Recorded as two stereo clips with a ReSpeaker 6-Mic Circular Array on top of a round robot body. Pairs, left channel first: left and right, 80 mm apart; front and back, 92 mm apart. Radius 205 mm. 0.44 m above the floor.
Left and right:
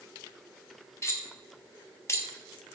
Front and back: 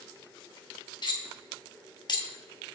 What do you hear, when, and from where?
1.0 s cutlery clinking: 35° left, 1.4 m